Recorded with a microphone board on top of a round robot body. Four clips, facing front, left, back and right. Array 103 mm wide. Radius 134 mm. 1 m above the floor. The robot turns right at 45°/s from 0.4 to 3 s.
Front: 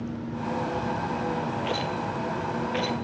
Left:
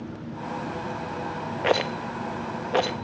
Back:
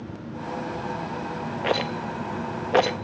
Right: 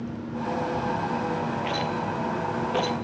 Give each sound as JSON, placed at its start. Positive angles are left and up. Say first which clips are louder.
{"t": 1.6, "sound": "a rattle", "louder": "left 3 dB, back 2 dB", "azimuth_deg": 115, "distance_m": 0.5}